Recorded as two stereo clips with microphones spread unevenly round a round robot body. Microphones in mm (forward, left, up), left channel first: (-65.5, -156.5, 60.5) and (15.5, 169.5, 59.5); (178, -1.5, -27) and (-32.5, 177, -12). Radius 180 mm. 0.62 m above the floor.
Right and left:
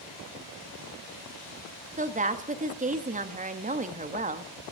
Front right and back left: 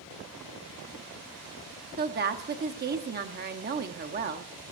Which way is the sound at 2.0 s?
125° left.